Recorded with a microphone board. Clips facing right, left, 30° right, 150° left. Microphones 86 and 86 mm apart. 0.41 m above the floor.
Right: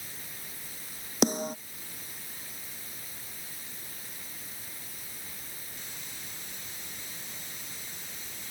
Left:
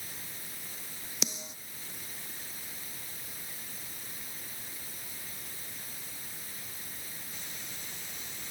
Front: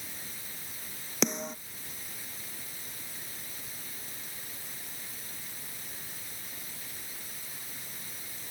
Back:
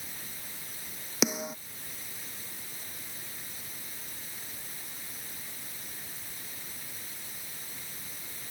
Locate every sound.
1.2 s a snare drum: 125° right